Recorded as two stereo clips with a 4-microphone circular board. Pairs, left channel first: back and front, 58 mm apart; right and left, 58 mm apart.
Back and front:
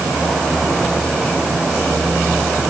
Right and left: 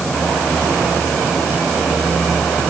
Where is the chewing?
No chewing in this recording.